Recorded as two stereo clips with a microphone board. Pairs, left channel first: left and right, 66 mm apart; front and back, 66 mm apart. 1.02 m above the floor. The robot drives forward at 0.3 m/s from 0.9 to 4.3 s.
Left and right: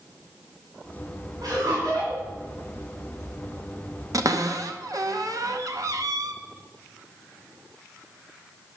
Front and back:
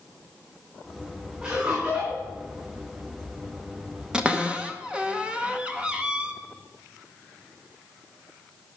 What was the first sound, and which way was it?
Laughter, 105° right.